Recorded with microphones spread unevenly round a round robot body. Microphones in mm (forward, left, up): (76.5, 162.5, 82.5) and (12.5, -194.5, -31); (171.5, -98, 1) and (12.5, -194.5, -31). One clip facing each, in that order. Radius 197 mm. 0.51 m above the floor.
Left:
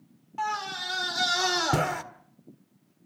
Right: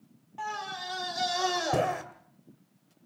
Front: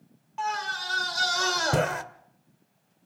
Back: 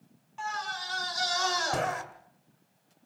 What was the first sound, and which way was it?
A scream, 20° left.